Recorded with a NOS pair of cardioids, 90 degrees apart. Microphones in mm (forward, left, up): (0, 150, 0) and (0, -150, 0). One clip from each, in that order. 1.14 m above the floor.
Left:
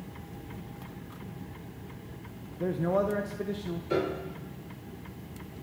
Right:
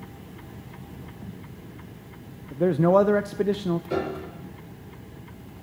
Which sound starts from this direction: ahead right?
A man speaking, at 2.5 s.